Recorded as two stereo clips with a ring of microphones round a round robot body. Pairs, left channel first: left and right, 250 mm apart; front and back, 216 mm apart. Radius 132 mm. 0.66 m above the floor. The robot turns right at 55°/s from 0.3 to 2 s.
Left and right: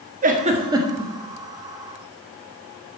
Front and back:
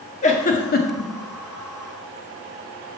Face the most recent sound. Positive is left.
turn(degrees=50)